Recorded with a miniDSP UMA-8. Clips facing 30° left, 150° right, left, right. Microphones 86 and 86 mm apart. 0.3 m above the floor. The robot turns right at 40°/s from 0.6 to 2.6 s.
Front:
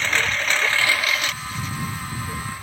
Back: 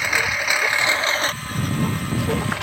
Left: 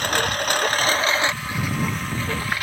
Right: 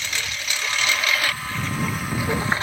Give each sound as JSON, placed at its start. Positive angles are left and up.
{"t": 0.0, "sound": "a lawn mower", "azimuth_deg": 130}